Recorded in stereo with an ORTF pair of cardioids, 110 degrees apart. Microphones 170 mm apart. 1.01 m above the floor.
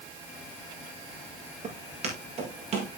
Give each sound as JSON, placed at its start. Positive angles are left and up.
{"t": 1.6, "sound": "footsteps", "azimuth_deg": -40, "distance_m": 7.0}